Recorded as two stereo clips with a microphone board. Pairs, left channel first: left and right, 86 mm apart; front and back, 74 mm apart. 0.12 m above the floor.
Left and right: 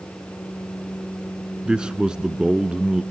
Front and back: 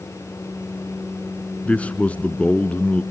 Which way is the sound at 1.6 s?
25° right.